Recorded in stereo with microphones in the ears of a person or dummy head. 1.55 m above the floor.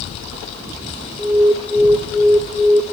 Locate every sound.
1.2 s an alarm: centre (ahead or behind), 0.8 m